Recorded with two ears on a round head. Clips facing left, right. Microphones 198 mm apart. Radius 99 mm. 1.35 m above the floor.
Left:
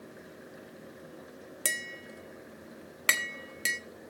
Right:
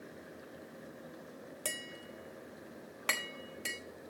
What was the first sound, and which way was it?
Tapping, 25° left (ahead or behind).